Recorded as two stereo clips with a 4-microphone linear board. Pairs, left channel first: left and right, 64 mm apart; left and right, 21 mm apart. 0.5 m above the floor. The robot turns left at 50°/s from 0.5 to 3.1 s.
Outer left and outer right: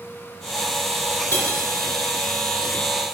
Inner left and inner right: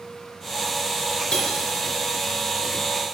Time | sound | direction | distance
1.3 | cutlery clinking | 40° left (ahead or behind) | 4 m